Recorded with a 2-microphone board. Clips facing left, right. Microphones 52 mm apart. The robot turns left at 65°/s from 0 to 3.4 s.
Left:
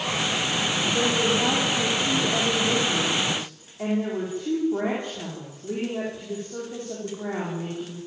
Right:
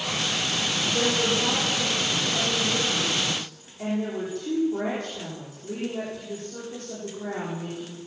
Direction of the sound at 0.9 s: 175° right.